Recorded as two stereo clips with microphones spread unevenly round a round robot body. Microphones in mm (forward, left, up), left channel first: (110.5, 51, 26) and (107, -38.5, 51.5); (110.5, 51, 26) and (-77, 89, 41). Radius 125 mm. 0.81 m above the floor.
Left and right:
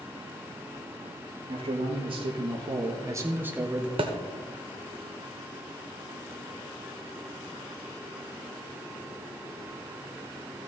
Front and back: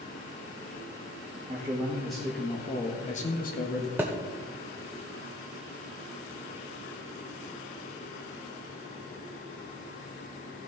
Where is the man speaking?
115° right, 1.6 m; by 3.9 s straight ahead, 1.5 m.